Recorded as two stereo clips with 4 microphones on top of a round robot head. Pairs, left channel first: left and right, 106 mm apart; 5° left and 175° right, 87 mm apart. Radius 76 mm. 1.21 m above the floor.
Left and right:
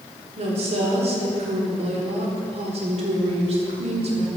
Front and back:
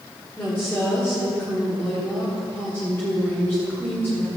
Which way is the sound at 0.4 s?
70° right.